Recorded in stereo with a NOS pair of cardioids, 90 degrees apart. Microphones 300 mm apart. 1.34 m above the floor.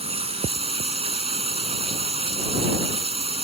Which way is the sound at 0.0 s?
20° right.